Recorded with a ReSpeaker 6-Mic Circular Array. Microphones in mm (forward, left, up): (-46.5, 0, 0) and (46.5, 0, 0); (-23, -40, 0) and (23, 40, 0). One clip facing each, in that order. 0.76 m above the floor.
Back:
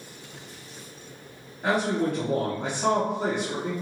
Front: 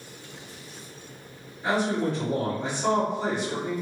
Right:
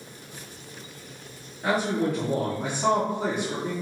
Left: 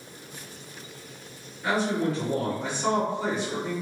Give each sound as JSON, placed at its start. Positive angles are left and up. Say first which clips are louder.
{"t": 1.6, "sound": "a man speaking", "louder": "back 1 dB, right 1 dB", "azimuth_deg": -150, "distance_m": 1.1}